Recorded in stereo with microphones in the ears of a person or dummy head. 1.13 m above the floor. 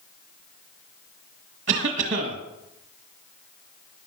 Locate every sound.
1.7 s a cough: 40° right (ahead or behind), 1.6 m